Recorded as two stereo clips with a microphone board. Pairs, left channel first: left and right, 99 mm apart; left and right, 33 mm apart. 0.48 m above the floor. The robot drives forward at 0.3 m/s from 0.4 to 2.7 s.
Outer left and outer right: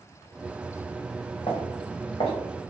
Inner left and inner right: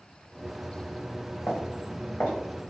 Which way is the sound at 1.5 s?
75° left (ahead or behind).